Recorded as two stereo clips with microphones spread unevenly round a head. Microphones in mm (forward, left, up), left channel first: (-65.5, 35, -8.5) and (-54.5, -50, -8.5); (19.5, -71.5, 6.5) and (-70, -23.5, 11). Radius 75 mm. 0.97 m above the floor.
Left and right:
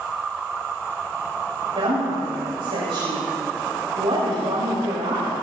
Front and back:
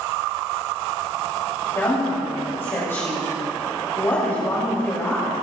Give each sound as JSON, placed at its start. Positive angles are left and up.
{"t": 1.8, "sound": "a woman speaking", "azimuth_deg": -95, "distance_m": 5.0}